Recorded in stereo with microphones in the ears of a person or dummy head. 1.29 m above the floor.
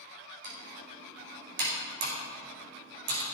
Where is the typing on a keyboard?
65° right (ahead or behind), 4.5 m.